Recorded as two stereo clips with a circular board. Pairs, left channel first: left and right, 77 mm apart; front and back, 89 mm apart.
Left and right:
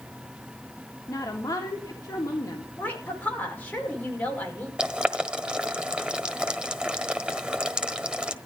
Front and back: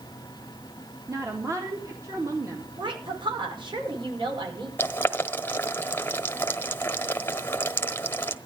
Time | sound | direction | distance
1.1 | a woman speaking | 130° left | 2 m
2.8 | a woman speaking | 160° left | 5.5 m
4.8 | boiling | 25° right | 1.2 m